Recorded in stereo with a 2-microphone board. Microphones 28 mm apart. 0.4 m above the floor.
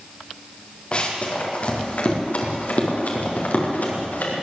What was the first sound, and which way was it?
Running footsteps, 40° left (ahead or behind).